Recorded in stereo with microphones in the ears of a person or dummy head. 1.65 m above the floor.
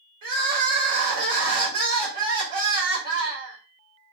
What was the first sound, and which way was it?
Crying, 55° right (ahead or behind).